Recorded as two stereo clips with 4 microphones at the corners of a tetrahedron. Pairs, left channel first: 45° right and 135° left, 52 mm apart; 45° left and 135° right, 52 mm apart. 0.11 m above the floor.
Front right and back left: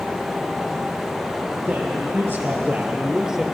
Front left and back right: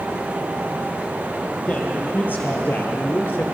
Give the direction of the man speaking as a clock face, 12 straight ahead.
9 o'clock.